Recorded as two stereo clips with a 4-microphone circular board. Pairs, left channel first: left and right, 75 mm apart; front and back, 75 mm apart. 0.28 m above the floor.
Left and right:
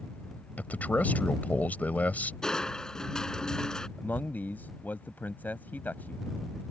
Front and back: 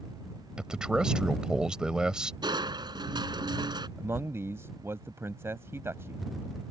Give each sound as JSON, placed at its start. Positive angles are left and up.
{"t": 0.6, "sound": "a man speaking", "azimuth_deg": 115}
{"t": 2.4, "sound": "crushing", "azimuth_deg": 170}
{"t": 4.0, "sound": "a man speaking", "azimuth_deg": 145}